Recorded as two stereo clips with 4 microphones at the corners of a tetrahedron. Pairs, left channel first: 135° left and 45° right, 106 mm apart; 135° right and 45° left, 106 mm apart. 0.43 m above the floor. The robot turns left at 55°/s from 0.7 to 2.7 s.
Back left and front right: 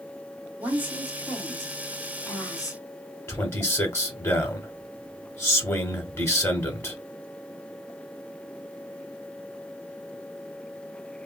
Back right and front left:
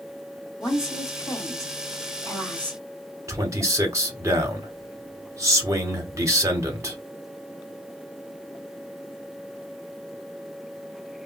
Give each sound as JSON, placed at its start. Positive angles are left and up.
{"t": 0.6, "sound": "a woman speaking", "azimuth_deg": -95, "distance_m": 1.6}
{"t": 3.3, "sound": "a man speaking", "azimuth_deg": 90, "distance_m": 1.0}